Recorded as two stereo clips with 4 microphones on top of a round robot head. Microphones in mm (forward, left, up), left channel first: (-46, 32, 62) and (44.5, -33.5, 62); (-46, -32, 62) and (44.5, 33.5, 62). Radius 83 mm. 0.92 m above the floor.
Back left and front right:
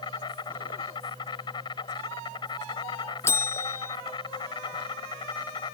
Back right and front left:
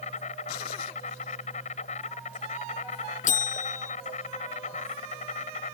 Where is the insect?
165° right.